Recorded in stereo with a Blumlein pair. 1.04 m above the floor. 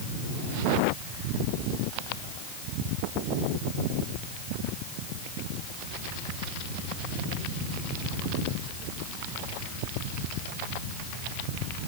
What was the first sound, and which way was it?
Only background noise.